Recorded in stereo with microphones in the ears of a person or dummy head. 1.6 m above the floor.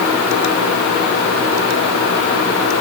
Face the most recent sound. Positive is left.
No sound to turn to.